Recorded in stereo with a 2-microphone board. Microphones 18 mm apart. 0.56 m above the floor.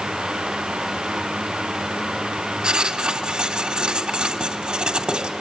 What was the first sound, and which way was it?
Writing, 70° right (ahead or behind).